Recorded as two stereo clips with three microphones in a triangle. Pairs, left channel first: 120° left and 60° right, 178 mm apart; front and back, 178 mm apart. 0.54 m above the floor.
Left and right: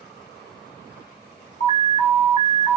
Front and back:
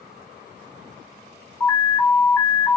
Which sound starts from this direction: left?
An alarm, at 1.6 s.